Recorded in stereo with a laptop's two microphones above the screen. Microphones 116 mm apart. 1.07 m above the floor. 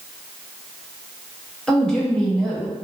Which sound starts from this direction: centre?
A woman speaking, at 1.7 s.